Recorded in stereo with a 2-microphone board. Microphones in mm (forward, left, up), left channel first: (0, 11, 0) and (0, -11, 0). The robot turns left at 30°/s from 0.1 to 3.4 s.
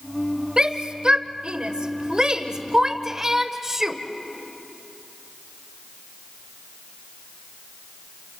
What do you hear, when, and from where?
0.6 s a shout: 40° right (ahead or behind), 1.1 m; by 4.0 s 20° right (ahead or behind), 1.1 m